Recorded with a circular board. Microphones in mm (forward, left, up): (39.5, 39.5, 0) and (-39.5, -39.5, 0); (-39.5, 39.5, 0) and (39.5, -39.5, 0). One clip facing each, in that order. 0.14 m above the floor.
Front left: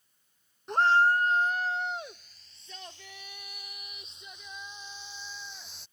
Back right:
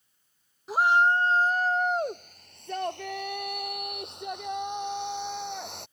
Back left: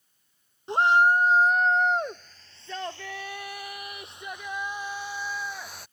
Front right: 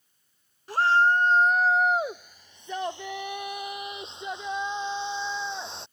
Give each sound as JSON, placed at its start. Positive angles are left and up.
{"t": 0.7, "sound": "a shout", "azimuth_deg": 145}